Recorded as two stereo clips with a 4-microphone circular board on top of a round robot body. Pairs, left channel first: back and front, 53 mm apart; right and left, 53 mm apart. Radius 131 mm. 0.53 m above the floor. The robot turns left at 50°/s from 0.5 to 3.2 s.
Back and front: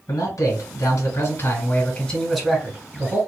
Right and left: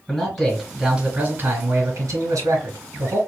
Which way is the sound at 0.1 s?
170° right.